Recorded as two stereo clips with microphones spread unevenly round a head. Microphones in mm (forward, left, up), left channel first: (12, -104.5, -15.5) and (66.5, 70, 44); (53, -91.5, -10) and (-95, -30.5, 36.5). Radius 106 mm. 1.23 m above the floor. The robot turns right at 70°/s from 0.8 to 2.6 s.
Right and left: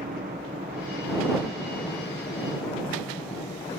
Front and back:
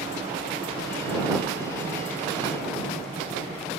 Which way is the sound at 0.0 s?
110° left.